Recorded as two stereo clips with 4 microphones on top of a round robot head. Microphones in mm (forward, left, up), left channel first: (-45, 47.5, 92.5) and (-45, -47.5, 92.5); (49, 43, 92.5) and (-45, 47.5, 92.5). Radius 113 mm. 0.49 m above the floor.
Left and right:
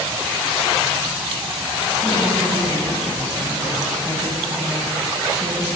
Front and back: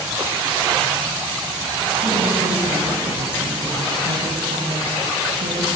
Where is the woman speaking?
170° right, 5.5 m.